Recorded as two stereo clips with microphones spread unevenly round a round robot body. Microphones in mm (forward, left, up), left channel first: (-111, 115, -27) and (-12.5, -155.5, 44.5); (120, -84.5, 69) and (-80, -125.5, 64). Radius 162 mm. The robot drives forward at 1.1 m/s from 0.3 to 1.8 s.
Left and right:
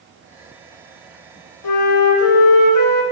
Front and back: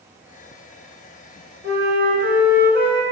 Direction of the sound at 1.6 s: 130° left.